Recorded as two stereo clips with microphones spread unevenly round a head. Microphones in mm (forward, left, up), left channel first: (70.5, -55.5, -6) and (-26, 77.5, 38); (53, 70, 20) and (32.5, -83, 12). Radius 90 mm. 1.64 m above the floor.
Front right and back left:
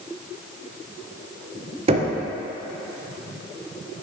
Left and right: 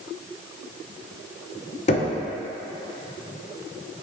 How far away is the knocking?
About 0.8 m.